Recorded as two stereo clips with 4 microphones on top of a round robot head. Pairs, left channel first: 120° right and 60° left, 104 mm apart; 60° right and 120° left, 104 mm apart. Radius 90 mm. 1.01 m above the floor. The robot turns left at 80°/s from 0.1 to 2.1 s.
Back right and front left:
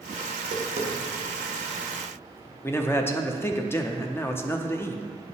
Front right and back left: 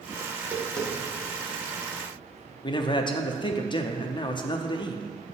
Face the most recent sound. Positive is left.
turn(degrees=-60)